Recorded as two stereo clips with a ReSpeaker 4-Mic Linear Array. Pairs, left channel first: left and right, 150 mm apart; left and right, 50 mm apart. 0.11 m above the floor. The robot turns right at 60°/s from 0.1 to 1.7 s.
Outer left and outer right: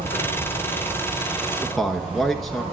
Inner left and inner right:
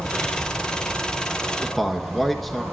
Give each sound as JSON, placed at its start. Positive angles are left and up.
{"t": 0.0, "sound": "an insect", "azimuth_deg": 85, "distance_m": 5.5}
{"t": 1.6, "sound": "a man speaking", "side_deg": 5, "distance_m": 1.2}